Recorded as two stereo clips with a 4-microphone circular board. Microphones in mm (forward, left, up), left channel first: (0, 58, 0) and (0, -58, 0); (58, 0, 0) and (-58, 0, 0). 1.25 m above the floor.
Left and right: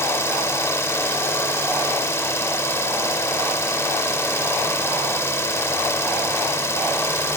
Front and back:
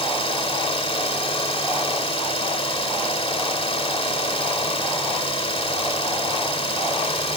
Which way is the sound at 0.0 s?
25° left.